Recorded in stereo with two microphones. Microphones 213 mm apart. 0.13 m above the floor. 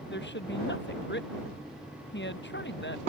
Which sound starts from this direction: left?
A woman speaking, at 0.1 s.